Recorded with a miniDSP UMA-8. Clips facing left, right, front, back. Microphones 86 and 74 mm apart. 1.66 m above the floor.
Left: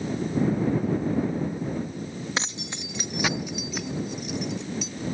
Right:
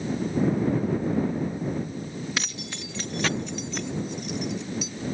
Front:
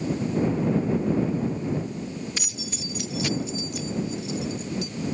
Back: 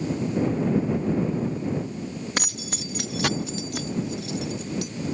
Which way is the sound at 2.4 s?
155° left.